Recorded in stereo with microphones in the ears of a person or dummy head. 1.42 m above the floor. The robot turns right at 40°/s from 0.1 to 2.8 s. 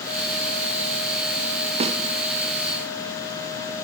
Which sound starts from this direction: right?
A snare drum, at 1.8 s.